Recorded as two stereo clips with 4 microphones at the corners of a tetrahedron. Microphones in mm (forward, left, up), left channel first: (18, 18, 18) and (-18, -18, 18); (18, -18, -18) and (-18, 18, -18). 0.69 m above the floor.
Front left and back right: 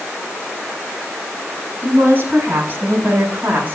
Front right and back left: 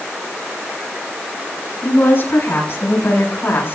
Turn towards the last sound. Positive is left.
turn(degrees=-85)